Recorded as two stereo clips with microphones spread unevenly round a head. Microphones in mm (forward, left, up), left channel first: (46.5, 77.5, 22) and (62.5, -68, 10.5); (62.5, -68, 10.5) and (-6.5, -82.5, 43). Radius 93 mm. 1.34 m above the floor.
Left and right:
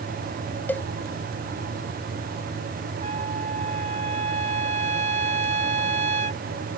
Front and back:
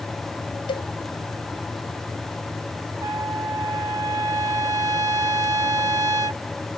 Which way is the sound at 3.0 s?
140° right.